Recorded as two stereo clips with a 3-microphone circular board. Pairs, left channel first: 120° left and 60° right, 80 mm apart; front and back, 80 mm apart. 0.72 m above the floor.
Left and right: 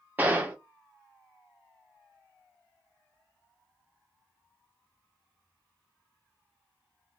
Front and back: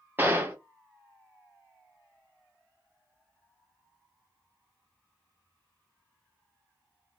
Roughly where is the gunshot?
Behind right.